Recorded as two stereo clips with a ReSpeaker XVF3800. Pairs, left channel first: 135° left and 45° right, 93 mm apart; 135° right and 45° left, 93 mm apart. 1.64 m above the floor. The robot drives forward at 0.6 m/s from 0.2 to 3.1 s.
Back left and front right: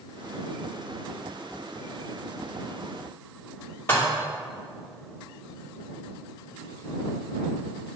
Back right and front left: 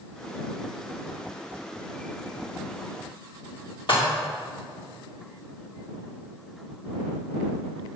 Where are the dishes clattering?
160° right, 2.5 m.